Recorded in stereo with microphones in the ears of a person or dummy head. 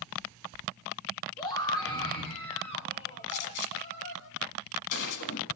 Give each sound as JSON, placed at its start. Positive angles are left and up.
{"t": 1.4, "sound": "a scream", "side_deg": 20, "distance_m": 3.0}
{"t": 3.3, "sound": "a gunshot", "side_deg": 60, "distance_m": 1.9}